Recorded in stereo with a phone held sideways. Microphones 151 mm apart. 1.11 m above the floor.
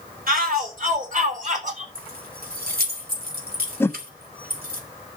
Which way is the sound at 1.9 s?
75° right (ahead or behind).